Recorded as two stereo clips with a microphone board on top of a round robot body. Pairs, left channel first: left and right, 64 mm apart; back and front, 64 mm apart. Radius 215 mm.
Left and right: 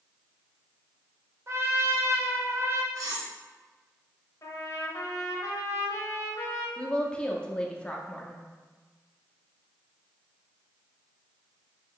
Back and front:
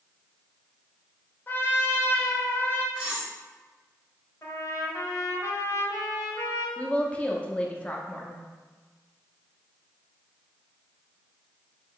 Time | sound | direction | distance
1.5 | a trumpet | 130° right | 0.8 m
3.0 | cutlery clinking | 75° right | 1.3 m
4.4 | a trumpet | 130° left | 0.9 m
6.8 | a woman speaking | 140° left | 0.9 m